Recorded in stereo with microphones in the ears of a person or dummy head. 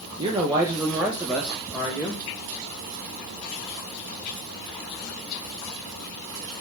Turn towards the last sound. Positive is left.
turn(degrees=10)  # may be behind; listen again after turning